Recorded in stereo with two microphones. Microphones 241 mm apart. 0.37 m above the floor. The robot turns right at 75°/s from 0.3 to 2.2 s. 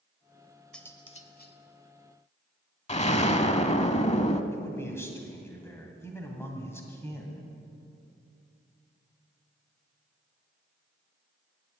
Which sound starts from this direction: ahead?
Cutlery clinking, at 0.7 s.